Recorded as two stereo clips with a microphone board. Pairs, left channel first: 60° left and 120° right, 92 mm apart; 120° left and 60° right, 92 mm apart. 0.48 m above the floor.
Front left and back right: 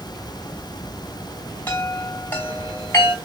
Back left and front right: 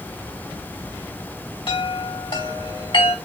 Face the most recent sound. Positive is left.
turn(degrees=125)